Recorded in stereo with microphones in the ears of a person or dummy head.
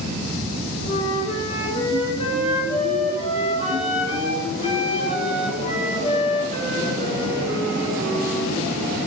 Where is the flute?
35° left (ahead or behind), 6.5 m.